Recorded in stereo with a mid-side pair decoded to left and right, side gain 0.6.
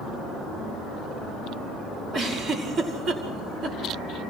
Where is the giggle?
40° right, 4.5 m.